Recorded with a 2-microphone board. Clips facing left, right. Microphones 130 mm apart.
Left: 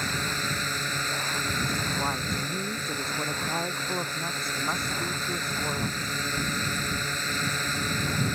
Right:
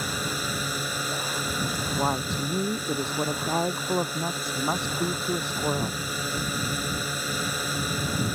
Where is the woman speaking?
25° right (ahead or behind).